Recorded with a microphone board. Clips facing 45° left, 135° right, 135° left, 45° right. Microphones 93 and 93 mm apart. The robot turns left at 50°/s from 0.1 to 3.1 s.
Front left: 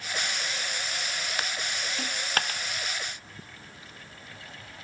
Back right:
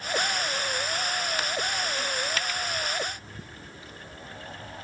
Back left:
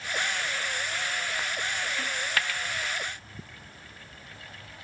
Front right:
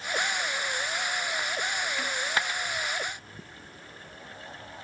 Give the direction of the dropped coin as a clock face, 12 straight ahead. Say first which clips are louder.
Back right 1 dB, front right 2 dB; 11 o'clock.